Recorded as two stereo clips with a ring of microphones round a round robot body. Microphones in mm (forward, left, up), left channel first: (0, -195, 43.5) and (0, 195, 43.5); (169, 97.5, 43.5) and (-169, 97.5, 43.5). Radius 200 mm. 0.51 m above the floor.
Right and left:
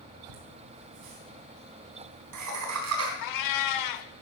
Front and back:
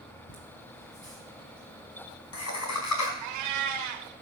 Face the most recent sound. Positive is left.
turn(degrees=-135)